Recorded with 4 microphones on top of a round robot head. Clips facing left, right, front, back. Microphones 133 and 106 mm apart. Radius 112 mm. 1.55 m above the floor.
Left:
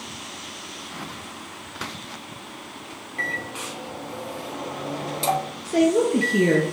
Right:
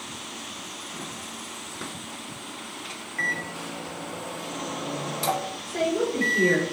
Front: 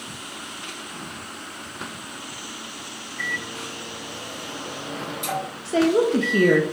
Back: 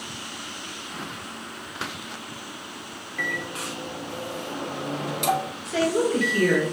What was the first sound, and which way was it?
A microwave, 160° left.